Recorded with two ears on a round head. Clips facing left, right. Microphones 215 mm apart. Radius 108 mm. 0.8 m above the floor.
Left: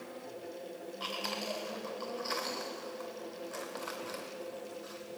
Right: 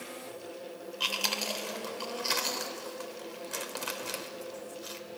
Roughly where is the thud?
No thud in this recording.